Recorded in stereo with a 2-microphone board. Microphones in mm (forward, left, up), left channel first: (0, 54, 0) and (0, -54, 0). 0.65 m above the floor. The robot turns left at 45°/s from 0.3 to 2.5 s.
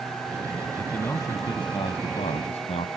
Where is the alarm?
No alarm in this recording.